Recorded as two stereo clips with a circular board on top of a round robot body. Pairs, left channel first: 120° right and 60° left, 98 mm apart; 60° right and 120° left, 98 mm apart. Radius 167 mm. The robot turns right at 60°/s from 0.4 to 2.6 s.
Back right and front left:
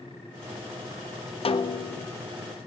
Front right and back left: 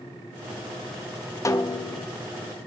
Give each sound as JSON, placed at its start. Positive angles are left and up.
{"t": 1.4, "sound": "a snare drum", "azimuth_deg": -115, "distance_m": 1.1}